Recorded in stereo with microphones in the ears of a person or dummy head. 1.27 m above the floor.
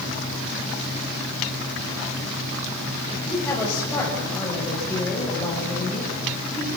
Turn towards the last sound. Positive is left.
turn(degrees=15)  # may be behind; listen again after turning